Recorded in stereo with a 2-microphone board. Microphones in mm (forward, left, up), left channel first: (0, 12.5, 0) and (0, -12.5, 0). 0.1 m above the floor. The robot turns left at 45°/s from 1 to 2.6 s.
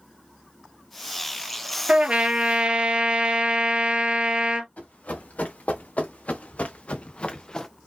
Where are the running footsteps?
90° left, 2.5 m; by 7.7 s 20° left (ahead or behind), 0.8 m.